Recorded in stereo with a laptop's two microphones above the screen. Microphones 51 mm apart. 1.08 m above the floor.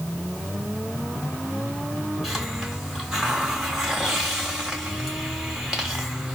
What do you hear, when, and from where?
2.2 s a hiss: 10° right (ahead or behind), 2 m